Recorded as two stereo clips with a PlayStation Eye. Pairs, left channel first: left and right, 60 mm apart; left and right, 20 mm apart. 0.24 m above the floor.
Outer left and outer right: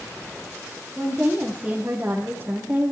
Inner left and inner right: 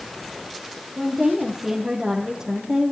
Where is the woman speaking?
10° right (ahead or behind), 6 m; by 2.9 s 25° right (ahead or behind), 5 m.